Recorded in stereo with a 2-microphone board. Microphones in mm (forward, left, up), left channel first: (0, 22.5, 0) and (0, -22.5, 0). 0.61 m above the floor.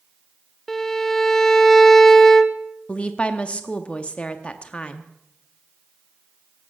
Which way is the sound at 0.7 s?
5° left (ahead or behind).